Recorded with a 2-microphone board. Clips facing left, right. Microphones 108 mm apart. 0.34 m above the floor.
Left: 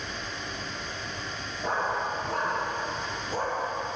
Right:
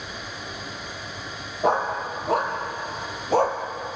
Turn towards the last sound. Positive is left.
turn(degrees=-80)